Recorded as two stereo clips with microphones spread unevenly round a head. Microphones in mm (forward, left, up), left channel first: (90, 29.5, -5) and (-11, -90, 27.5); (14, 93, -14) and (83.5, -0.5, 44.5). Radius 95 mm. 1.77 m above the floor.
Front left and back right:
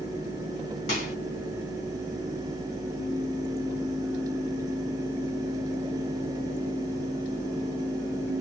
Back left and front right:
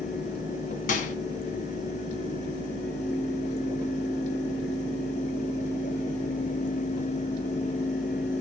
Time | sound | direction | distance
0.9 | a microwave | 110° left | 2.5 m